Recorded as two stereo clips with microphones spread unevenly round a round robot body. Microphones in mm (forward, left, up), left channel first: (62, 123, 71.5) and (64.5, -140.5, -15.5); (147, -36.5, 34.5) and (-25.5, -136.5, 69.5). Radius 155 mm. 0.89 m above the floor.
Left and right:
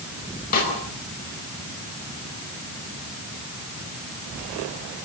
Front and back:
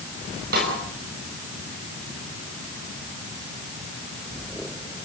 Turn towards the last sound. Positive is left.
turn(degrees=155)